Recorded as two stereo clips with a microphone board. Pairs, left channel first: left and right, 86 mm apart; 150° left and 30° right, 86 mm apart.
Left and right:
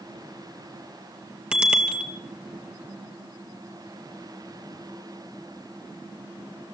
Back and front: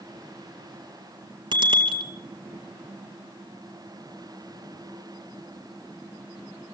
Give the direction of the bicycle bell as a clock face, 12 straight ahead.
12 o'clock.